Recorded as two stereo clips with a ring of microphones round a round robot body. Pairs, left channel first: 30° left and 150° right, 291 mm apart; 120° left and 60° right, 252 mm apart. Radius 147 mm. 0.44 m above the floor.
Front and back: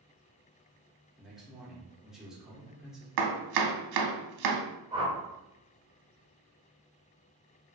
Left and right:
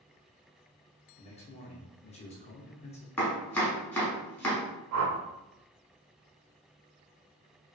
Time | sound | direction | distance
1.2 | a man speaking | 125° left | 0.7 m
3.2 | chopping | 155° right | 0.6 m
4.9 | a whoosh | 75° right | 0.5 m